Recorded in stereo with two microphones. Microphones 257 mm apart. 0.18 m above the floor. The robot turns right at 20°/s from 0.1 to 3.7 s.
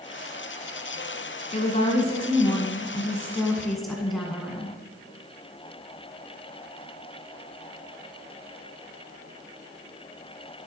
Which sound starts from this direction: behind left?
A woman speaking, at 1.5 s.